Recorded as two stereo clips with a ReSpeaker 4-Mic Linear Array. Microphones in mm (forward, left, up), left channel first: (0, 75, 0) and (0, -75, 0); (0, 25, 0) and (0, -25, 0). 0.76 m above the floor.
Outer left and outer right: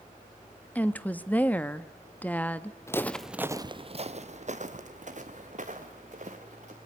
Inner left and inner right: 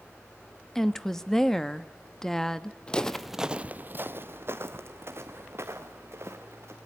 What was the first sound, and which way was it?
A woman speaking, 10° left (ahead or behind).